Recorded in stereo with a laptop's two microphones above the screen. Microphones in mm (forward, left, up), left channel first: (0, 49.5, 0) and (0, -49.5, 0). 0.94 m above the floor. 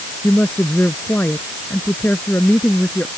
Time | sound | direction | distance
0.2 | a woman speaking | 20° left (ahead or behind) | ?